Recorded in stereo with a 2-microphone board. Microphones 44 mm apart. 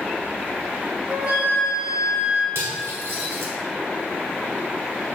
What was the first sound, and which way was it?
A flute, 30° right (ahead or behind).